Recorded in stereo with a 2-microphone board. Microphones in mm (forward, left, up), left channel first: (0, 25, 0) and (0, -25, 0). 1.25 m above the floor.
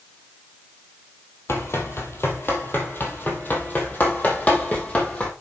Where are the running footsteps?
60° left (ahead or behind), 2.5 m; by 5.3 s 25° left (ahead or behind), 3.5 m.